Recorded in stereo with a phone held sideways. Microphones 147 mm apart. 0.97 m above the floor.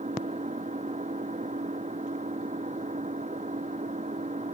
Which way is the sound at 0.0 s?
55° right (ahead or behind).